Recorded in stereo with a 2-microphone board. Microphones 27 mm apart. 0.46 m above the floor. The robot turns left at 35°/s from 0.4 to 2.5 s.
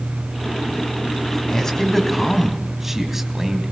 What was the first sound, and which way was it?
A man speaking, 25° left.